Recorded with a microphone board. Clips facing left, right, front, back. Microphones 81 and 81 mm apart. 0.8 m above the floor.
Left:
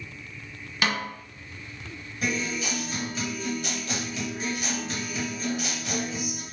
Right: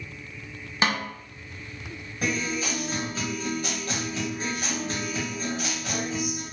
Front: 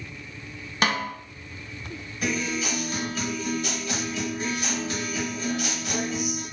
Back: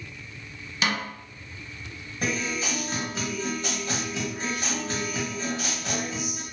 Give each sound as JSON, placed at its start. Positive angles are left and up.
{"t": 0.8, "sound": "a snare drum", "azimuth_deg": -35, "distance_m": 0.5}
{"t": 2.2, "sound": "a guitar", "azimuth_deg": -135, "distance_m": 1.0}